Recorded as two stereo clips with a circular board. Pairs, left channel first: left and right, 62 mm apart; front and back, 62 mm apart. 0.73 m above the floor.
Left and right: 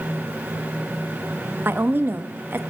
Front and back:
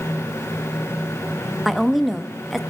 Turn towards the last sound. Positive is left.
turn(degrees=-90)